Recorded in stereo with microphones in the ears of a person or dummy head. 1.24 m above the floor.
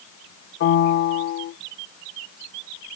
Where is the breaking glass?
I don't hear breaking glass.